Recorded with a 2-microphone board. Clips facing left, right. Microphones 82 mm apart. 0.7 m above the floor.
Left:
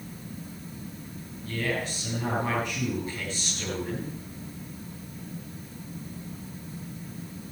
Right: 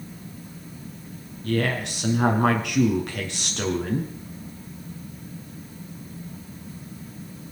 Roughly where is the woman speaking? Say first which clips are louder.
Right 5 dB; right.